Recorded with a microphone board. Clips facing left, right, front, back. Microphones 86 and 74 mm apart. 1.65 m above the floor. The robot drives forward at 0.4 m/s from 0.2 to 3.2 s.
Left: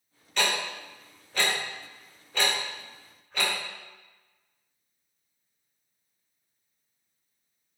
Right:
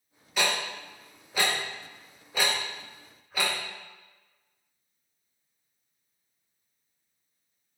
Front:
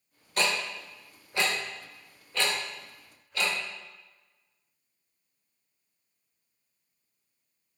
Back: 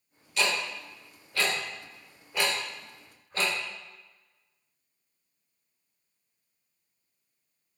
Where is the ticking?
10° right, 1.0 m; by 3.5 s 170° right, 0.8 m.